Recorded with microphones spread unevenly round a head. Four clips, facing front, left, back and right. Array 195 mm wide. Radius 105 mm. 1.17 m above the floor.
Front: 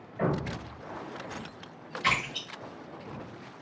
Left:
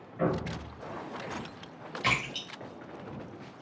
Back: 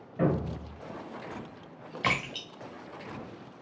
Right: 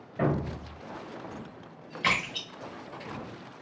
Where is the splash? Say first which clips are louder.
Right 2 dB, front 1 dB; straight behind, 1.4 m.